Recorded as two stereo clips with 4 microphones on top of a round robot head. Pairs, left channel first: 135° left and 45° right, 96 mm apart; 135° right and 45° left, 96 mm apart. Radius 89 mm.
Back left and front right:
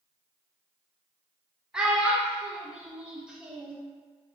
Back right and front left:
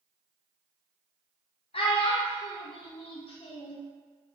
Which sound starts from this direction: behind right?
A child speaking, at 1.7 s.